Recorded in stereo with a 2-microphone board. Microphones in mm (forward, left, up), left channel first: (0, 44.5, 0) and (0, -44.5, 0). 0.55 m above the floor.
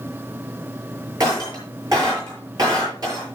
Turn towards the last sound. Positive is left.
turn(degrees=-45)  # may be behind; listen again after turning